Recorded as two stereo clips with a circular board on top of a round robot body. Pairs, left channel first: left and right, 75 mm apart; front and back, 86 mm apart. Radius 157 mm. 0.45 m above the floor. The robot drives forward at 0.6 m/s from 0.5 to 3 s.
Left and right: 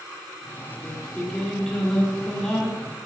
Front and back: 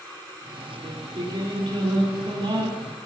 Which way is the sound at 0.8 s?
170° left.